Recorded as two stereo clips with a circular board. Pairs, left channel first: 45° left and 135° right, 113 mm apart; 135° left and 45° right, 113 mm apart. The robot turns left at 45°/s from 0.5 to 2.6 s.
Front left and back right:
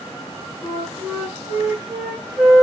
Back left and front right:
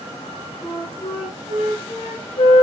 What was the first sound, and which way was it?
A flute, 145° right.